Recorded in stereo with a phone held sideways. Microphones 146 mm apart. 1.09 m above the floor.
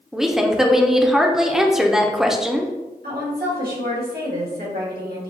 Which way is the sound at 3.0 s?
80° right.